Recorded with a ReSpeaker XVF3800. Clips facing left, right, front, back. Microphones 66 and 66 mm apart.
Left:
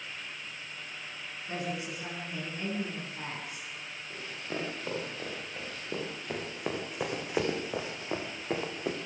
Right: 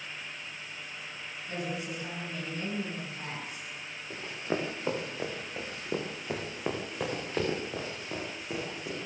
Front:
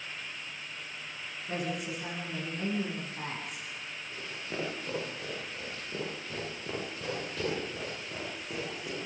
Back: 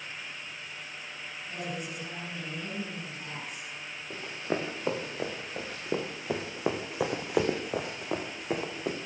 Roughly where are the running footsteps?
Behind right.